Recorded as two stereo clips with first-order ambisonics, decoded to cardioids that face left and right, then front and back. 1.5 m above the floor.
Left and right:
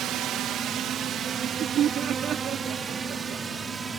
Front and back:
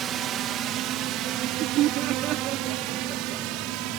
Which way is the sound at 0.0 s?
130° right.